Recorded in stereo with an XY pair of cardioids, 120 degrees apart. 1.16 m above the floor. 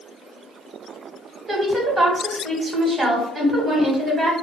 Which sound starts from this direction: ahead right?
A woman speaking, at 1.5 s.